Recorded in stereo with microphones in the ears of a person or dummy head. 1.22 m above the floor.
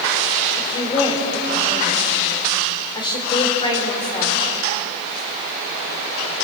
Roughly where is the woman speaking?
Left.